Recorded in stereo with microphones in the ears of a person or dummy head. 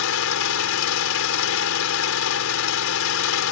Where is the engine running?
80° left.